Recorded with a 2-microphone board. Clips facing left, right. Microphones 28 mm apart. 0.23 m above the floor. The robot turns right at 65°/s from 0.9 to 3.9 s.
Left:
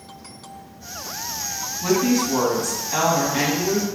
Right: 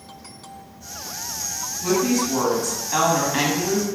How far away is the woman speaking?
About 1.8 m.